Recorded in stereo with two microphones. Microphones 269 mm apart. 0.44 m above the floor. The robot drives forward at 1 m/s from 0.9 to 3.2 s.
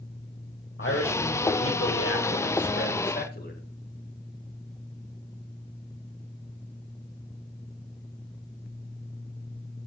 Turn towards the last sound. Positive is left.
turn(degrees=35)  # may be behind; listen again after turning